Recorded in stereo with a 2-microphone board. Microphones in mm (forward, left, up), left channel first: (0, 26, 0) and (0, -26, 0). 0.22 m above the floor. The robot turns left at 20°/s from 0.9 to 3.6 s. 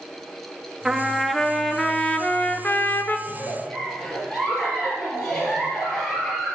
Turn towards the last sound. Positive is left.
turn(degrees=15)  # may be behind; listen again after turning